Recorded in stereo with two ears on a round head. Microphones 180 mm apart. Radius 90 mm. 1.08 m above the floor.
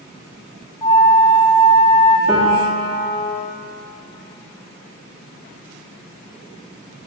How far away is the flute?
About 0.6 m.